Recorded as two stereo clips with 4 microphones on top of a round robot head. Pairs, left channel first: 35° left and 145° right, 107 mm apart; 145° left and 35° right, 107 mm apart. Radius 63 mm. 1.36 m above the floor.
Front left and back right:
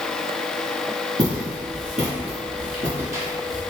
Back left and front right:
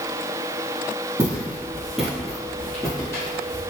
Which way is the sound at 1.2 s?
100° right.